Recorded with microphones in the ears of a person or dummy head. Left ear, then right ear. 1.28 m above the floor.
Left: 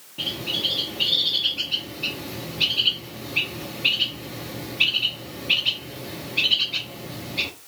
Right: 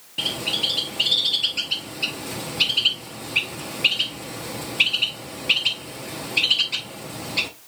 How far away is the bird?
About 1.0 m.